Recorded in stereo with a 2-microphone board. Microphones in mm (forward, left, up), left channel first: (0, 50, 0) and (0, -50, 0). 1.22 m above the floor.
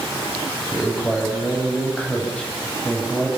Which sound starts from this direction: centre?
A man speaking, at 0.7 s.